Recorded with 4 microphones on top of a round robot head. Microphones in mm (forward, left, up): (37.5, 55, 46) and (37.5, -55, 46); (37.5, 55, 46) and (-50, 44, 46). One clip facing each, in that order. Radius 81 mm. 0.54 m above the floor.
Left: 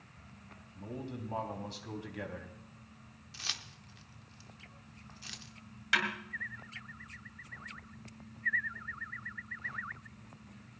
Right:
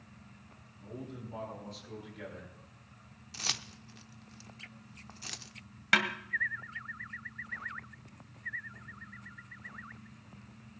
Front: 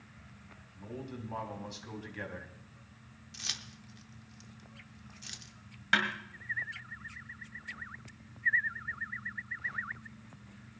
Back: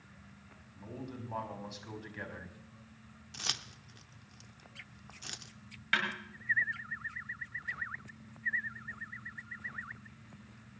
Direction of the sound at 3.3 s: 135° right.